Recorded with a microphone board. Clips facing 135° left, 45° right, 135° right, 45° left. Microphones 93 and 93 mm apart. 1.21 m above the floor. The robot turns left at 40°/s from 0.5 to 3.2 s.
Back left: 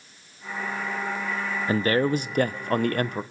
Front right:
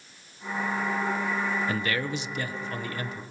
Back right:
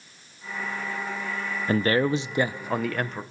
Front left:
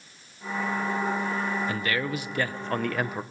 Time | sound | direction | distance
1.7 | a man speaking | 175° right | 0.8 m